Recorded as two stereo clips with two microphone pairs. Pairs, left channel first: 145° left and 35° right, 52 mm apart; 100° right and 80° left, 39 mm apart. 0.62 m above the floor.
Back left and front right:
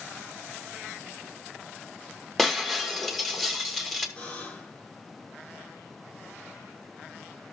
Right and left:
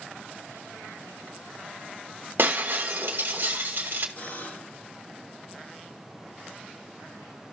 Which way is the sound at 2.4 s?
55° left.